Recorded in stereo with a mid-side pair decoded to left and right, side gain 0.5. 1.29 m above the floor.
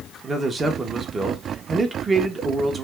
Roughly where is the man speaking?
Ahead right.